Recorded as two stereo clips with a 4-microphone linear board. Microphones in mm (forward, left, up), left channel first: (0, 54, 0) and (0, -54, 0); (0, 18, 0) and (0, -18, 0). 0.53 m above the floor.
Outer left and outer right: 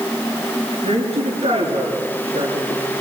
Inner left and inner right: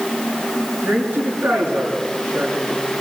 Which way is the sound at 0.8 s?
70° right (ahead or behind).